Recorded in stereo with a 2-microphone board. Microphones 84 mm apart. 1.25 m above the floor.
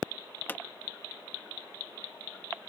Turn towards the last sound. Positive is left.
turn(degrees=25)  # may be behind; listen again after turning